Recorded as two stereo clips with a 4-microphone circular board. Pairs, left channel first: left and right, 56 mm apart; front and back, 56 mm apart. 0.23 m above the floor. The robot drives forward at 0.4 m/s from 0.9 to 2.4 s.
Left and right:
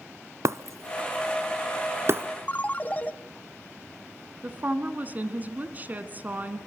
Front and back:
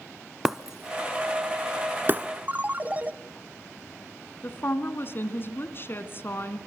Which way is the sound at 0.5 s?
100° right.